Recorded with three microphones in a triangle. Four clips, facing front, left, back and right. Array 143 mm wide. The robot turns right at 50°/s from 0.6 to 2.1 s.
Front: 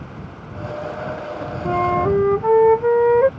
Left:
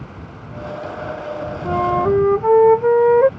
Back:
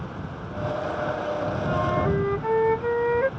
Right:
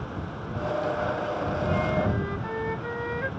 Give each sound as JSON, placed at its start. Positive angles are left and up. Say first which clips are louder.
{"t": 1.6, "sound": "a flute", "louder": "left 12 dB, front 8 dB", "azimuth_deg": 40}